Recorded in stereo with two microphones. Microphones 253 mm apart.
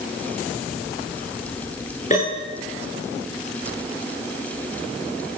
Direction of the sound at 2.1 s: 25° left (ahead or behind).